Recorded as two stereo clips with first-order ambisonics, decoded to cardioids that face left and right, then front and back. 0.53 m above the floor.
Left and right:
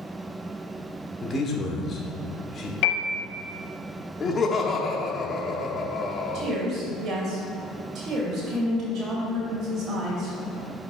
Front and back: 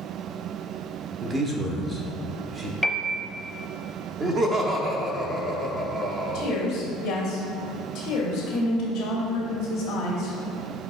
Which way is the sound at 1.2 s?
145° left.